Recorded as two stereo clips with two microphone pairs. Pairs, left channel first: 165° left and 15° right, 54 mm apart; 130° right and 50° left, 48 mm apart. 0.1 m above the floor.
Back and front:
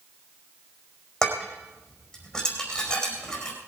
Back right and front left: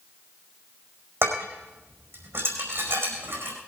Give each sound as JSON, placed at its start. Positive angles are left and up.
{"t": 1.2, "sound": "dishes clattering", "azimuth_deg": 85, "distance_m": 4.5}